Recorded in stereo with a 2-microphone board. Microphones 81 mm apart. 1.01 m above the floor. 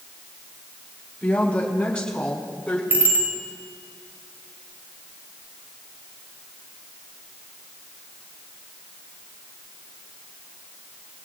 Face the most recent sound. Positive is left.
turn(degrees=-25)  # may be behind; listen again after turning